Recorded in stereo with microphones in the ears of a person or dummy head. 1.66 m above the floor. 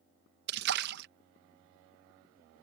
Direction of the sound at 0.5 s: 55° right (ahead or behind).